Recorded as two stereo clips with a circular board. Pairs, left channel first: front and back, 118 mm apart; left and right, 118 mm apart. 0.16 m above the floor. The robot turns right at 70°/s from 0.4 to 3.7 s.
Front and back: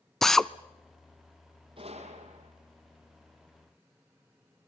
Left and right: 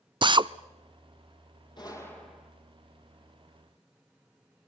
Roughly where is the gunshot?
Behind left.